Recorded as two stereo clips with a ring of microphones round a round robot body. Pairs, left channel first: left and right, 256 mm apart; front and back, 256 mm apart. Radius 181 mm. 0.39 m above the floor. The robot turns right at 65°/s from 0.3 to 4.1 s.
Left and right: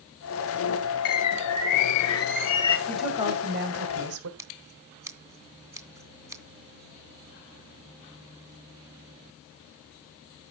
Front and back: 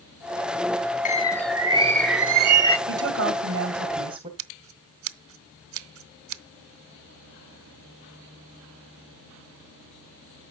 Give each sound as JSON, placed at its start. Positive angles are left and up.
{"t": 1.1, "sound": "a bird", "azimuth_deg": 60, "distance_m": 1.3}
{"t": 2.9, "sound": "a woman speaking", "azimuth_deg": 170, "distance_m": 2.5}
{"t": 4.4, "sound": "scissors", "azimuth_deg": -170, "distance_m": 0.7}